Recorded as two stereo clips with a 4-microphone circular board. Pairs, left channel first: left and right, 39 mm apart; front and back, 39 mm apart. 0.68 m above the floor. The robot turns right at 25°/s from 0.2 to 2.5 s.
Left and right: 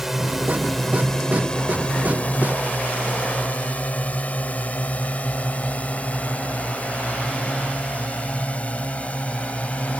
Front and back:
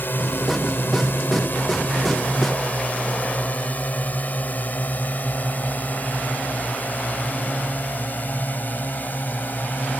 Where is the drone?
10° right; by 10.0 s 35° left.